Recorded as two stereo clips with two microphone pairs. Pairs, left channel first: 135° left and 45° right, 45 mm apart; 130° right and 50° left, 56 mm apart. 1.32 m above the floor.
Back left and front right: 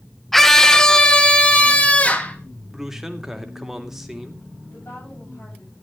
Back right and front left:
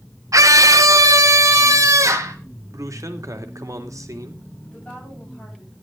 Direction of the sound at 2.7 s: 35° left.